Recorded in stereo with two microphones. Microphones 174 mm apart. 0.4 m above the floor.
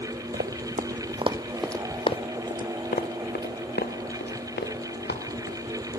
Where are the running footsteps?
65° right (ahead or behind), 1.2 m; by 5.9 s 80° left, 3.5 m.